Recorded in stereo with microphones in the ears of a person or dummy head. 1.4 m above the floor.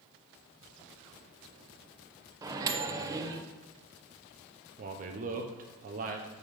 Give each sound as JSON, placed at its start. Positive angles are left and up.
{"t": 2.4, "sound": "a microwave", "side_deg": -20, "distance_m": 0.7}
{"t": 4.8, "sound": "a man speaking", "side_deg": -40, "distance_m": 0.7}